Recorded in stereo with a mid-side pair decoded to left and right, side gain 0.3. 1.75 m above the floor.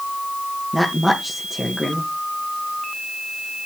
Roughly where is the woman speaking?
Ahead.